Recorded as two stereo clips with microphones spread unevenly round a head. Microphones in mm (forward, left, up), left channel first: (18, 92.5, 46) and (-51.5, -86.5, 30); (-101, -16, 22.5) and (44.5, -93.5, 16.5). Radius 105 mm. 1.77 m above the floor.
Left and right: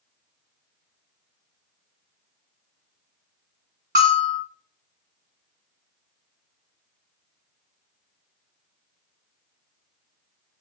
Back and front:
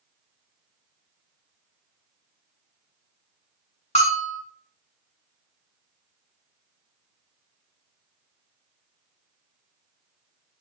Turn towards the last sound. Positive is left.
turn(degrees=-160)